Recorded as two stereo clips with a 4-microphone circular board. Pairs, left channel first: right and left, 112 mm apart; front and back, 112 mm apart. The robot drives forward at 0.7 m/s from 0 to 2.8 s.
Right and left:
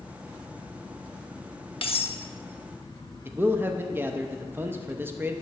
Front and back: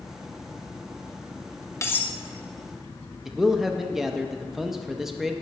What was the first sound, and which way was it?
Cutlery clinking, 60° right.